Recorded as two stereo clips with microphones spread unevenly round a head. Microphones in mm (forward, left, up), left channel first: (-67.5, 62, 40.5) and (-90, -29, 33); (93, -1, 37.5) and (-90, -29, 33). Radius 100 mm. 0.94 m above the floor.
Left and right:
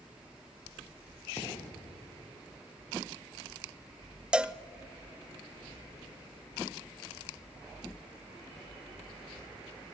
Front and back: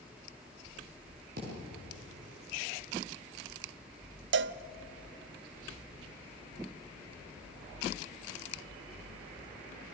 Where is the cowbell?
Straight behind, 0.5 m.